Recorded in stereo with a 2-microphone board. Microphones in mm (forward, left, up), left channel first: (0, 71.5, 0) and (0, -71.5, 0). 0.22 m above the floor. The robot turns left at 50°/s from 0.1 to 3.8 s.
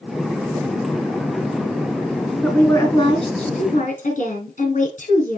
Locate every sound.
2.4 s a woman speaking: 170° left, 3 m; by 5.4 s 100° left, 3 m